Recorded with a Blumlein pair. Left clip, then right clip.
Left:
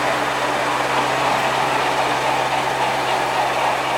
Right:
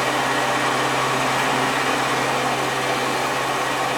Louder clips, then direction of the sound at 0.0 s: Left 1 dB; 5° right.